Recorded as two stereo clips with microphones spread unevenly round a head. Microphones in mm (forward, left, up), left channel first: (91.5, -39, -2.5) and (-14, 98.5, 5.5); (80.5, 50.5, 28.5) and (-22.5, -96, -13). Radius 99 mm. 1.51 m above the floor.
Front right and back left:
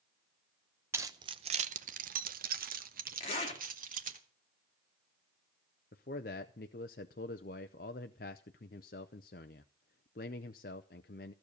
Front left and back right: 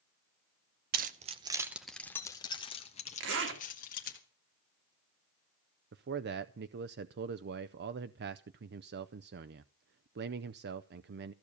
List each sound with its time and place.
0.9 s keys jangling: 160° right, 0.7 m; by 4.2 s 95° left, 1.8 m
3.2 s a zipper: 115° right, 2.5 m
5.9 s a man speaking: 95° right, 0.5 m